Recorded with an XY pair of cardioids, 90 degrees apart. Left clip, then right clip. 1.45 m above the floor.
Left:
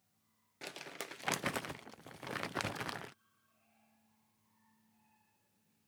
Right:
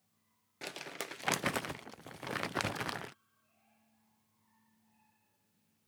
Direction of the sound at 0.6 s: 20° right.